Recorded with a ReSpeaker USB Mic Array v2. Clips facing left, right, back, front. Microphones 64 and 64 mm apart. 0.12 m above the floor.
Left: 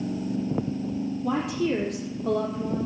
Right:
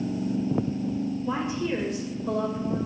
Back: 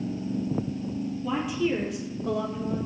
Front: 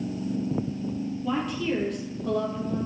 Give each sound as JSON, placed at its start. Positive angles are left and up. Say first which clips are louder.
{"t": 1.2, "sound": "a woman speaking", "louder": "left 6 dB, back 1 dB", "azimuth_deg": 95, "distance_m": 4.0}